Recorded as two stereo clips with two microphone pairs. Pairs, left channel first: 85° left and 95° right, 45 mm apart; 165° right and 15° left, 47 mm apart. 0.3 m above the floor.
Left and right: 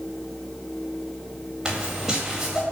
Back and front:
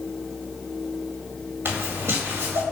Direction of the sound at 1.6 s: 15° right.